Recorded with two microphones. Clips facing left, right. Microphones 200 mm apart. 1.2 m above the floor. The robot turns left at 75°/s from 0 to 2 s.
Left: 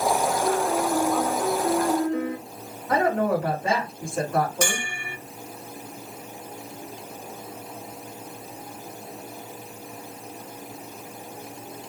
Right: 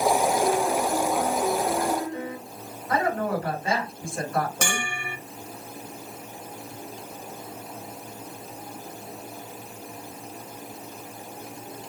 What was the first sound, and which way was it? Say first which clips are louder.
A piano: even; 155° right.